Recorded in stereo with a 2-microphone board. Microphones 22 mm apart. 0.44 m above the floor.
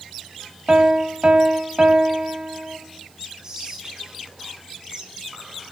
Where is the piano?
40° right (ahead or behind), 1.2 m.